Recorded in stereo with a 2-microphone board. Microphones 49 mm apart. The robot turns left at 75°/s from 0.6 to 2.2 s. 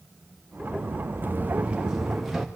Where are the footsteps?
40° right (ahead or behind), 2 m; by 2.5 s 5° right (ahead or behind), 2.5 m.